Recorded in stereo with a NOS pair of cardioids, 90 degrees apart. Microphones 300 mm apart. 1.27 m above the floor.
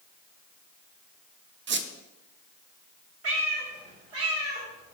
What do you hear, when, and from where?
1.7 s a squeak: 40° right, 0.6 m
3.2 s a cat meowing: 55° right, 2 m